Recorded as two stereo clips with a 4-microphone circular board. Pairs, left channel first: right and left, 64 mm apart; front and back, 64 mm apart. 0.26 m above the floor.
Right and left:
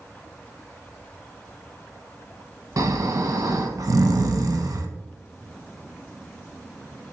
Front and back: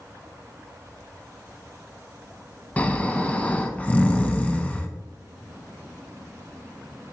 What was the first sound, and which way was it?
Snoring, 70° left.